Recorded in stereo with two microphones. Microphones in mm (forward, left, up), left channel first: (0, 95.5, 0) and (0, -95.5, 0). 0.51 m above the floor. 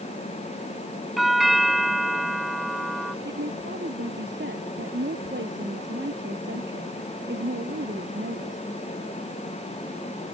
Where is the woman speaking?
70° right (ahead or behind).